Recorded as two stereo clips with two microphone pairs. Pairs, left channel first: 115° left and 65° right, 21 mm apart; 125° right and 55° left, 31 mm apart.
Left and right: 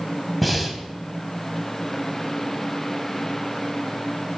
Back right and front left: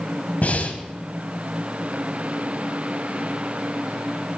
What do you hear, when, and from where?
0.4 s breathing: 150° right, 2.0 m